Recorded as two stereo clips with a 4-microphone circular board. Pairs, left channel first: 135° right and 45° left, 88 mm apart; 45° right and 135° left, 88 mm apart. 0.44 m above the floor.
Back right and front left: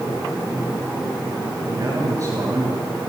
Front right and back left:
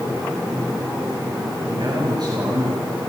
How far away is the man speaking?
About 7.5 m.